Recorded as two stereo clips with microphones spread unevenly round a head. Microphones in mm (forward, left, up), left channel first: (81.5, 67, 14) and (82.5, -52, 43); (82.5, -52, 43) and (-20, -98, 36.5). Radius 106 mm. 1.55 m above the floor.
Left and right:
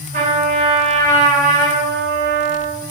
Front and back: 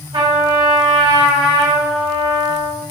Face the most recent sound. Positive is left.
turn(degrees=-115)